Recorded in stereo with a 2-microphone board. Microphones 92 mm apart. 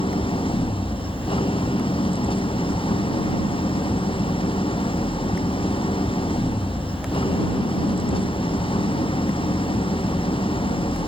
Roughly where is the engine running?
Left.